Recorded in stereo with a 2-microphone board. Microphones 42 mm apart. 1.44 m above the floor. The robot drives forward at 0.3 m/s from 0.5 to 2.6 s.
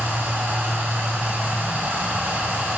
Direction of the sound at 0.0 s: 60° right (ahead or behind).